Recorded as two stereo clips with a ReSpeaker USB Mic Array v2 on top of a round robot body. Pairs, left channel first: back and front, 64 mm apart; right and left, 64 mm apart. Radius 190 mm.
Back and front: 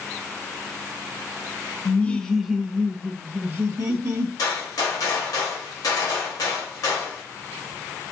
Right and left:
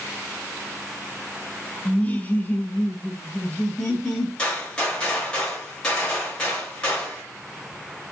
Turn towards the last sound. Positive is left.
turn(degrees=-165)